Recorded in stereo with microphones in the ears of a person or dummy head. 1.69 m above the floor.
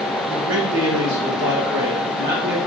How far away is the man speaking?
About 1.2 m.